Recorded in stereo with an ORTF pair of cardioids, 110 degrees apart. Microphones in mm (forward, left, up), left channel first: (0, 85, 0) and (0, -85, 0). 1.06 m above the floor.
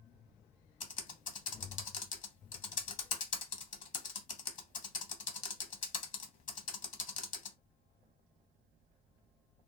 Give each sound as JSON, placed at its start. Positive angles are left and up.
{"t": 0.8, "sound": "typing on a keyboard", "azimuth_deg": 50, "distance_m": 0.7}